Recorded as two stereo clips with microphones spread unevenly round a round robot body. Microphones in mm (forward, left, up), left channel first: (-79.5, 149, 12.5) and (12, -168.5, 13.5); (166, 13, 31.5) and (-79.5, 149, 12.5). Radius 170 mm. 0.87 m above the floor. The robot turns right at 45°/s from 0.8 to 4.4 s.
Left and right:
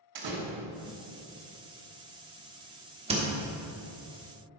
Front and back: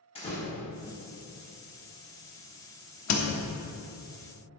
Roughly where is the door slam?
Right.